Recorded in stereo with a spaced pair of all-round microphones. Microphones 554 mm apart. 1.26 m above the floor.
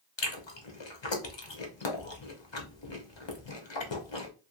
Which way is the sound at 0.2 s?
55° left (ahead or behind).